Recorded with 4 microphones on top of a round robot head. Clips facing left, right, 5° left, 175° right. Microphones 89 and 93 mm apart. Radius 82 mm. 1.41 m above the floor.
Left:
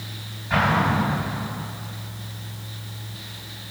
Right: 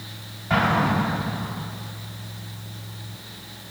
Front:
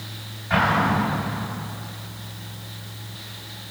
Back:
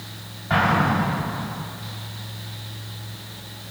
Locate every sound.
0.5 s an explosion: 115° right, 4.5 m